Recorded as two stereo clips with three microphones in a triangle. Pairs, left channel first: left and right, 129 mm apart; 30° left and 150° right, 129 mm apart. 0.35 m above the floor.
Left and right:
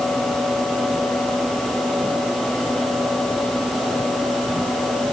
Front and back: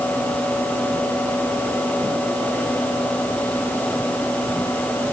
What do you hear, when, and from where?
Only background noise.